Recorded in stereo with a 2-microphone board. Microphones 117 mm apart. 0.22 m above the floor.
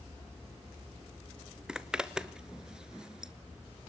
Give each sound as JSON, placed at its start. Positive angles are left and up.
{"t": 1.7, "sound": "a zipper", "side_deg": -5, "distance_m": 0.9}